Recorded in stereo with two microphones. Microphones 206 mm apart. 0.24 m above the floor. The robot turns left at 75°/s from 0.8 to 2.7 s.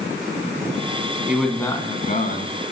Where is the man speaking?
170° right, 1.8 m; by 2.6 s 95° left, 1.8 m.